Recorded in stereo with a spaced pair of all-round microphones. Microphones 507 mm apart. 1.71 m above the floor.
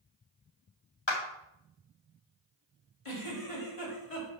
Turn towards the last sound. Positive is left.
turn(degrees=80)